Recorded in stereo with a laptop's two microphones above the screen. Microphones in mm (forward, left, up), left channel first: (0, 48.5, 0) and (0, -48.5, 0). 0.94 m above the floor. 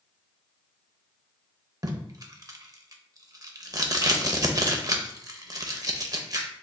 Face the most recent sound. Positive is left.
turn(degrees=-40)  # may be behind; listen again after turning